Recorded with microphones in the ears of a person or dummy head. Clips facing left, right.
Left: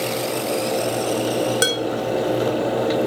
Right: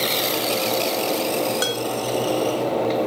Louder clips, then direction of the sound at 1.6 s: Left 3 dB; 25° left (ahead or behind).